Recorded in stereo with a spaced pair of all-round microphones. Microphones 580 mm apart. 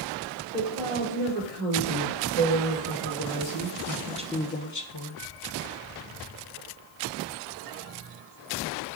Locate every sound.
0.5 s a woman speaking: 80° right, 4.5 m; by 5.2 s 50° left (ahead or behind), 1.2 m